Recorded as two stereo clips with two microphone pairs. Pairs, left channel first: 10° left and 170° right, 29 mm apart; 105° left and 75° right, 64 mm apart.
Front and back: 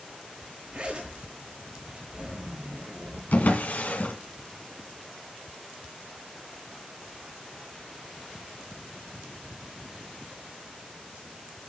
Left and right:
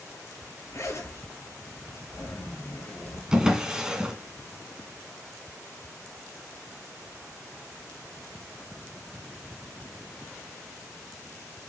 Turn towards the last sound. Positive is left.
turn(degrees=5)